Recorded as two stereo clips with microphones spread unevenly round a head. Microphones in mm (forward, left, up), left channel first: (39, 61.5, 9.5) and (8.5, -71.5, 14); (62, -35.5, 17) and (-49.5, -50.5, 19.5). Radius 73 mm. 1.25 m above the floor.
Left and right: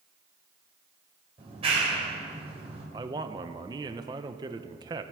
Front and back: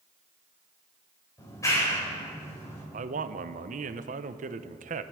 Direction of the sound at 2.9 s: 170° right.